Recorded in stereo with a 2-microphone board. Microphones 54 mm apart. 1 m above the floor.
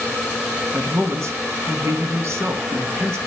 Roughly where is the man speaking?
Right.